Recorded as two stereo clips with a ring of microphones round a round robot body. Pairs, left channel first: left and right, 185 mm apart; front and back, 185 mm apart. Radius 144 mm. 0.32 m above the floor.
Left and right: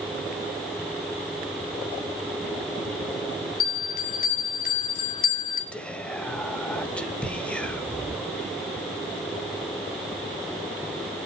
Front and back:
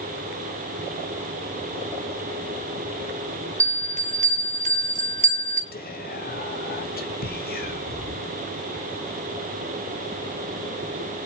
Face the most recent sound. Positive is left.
turn(degrees=5)